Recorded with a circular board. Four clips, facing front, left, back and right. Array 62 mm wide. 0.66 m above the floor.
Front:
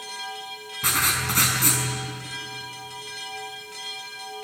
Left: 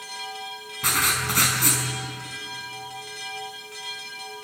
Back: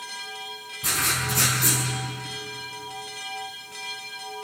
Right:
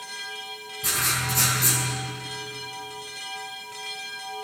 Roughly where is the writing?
Ahead left.